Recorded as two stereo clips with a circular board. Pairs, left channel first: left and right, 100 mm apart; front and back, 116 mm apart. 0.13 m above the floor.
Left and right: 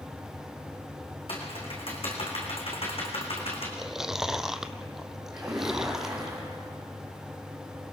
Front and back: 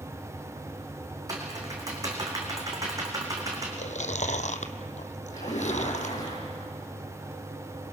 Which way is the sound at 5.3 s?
5° right.